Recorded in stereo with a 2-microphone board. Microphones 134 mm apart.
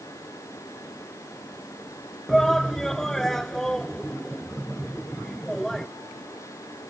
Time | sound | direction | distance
2.3 | a shout | 5° left (ahead or behind) | ?